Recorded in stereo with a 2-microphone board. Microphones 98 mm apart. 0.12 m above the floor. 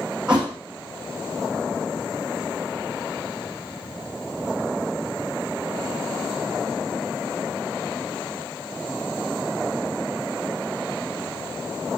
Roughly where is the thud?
Centre.